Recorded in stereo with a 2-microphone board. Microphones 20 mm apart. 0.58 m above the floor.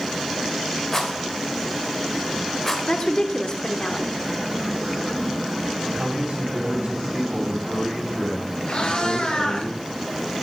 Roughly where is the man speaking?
Right.